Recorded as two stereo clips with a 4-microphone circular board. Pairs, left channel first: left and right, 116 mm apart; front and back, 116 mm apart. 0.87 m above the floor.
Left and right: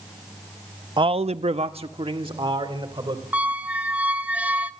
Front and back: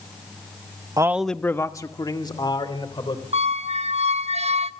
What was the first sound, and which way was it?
A man speaking, 130° right.